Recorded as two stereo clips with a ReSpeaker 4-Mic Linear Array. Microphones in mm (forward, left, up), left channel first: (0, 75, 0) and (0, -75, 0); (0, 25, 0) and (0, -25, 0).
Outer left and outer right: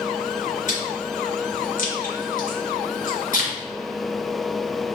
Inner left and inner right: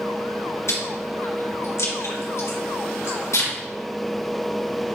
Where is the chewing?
60° left (ahead or behind), 3.5 m.